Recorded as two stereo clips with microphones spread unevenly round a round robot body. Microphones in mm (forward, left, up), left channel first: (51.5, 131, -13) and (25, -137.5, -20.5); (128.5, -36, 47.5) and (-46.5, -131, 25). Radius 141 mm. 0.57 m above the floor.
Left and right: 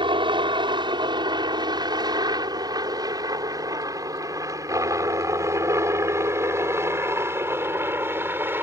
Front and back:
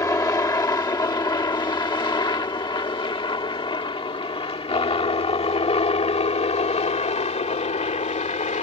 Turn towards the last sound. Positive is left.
turn(degrees=-15)